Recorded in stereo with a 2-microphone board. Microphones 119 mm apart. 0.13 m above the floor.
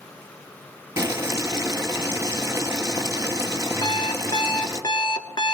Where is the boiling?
25° right (ahead or behind), 1.1 m.